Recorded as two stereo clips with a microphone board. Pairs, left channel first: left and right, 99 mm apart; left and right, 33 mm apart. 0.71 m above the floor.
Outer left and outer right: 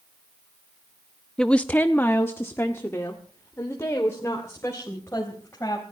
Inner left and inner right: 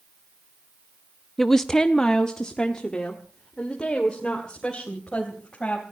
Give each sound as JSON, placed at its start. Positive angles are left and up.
{"t": 1.4, "sound": "a woman speaking", "side_deg": 5, "distance_m": 0.5}